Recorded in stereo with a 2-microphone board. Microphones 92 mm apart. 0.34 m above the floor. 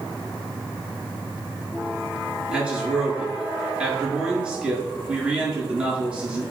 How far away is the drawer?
No drawer in this recording.